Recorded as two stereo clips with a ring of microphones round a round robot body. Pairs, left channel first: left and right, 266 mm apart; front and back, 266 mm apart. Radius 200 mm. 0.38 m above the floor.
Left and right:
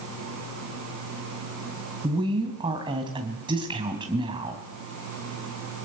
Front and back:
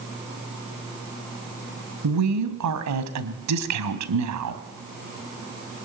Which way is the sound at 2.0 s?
165° right.